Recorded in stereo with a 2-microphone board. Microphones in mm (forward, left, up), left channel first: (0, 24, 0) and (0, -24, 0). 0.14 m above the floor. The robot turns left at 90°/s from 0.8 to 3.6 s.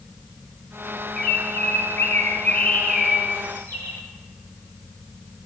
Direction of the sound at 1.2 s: 165° left.